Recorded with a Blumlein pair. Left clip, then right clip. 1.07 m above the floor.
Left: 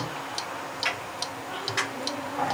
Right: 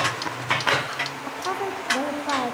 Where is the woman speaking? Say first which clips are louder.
Right 6 dB; 40° right, 1.1 m.